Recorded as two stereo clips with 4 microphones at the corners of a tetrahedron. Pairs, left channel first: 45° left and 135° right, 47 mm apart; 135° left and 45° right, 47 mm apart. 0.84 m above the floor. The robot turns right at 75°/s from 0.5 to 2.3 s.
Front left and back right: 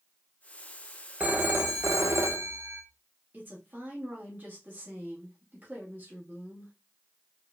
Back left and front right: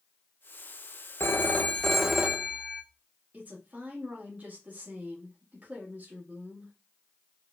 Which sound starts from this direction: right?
A woman speaking, at 3.3 s.